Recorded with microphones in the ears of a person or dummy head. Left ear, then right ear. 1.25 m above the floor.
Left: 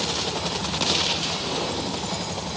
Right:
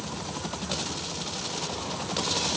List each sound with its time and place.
Only background noise.